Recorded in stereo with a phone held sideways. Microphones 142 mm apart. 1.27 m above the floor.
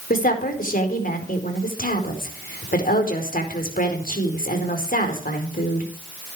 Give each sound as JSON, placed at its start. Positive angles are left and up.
{"t": 0.1, "sound": "a woman speaking", "side_deg": 85, "distance_m": 4.5}